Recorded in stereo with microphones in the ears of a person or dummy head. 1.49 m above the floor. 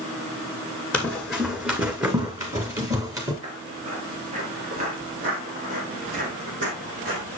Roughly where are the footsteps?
Right.